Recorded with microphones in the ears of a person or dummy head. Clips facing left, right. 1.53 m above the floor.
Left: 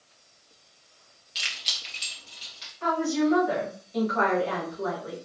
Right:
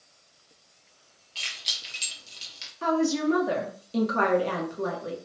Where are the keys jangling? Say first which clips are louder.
Left 2 dB; 25° left (ahead or behind), 0.6 m; by 2.7 s 35° right (ahead or behind), 1.2 m.